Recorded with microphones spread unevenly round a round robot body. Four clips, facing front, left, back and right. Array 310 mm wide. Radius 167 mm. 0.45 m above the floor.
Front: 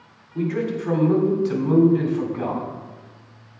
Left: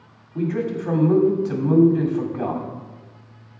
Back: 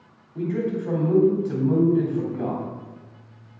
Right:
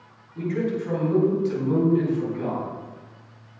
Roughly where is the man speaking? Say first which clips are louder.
Left 2 dB, front 1 dB; left.